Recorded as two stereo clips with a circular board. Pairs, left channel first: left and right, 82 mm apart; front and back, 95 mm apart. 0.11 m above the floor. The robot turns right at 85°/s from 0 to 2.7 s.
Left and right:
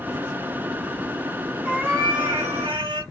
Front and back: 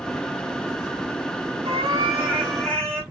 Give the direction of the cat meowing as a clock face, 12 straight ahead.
5 o'clock.